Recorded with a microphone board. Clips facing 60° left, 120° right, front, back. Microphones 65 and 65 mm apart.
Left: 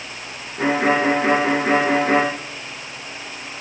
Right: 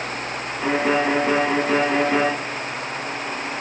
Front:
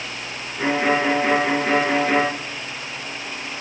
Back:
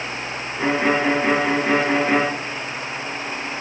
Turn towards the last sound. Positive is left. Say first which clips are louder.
# left 2 dB, even
turn(degrees=90)